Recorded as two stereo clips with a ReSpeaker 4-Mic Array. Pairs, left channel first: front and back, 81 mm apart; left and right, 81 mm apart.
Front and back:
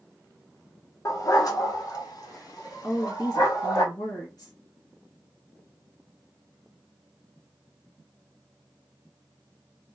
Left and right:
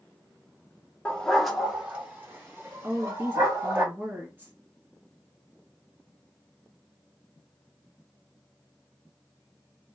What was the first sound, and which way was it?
A dog barking, 20° left.